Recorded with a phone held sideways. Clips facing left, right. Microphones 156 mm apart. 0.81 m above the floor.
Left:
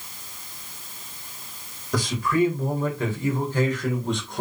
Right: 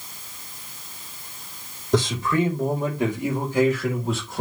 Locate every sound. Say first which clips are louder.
1.9 s a man speaking: right 2 dB; 25° right (ahead or behind), 4 m; by 4.4 s centre (ahead or behind), 3.5 m